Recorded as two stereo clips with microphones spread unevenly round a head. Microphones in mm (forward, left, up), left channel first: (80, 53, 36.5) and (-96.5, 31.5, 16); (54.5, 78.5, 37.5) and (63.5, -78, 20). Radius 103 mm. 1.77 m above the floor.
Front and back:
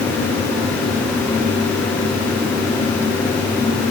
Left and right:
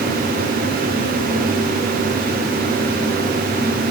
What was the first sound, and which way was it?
Only background noise.